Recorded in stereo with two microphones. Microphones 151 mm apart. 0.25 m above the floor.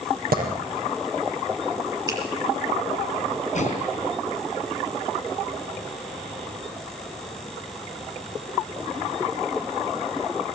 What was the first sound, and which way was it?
A clap, 80° right.